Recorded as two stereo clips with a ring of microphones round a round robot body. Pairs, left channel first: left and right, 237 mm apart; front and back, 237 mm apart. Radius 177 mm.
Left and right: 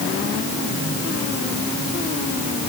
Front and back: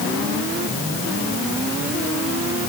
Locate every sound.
Only background noise.